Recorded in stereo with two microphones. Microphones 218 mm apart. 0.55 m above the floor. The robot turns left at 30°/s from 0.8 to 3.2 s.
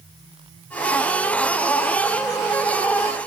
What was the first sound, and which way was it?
Only background noise.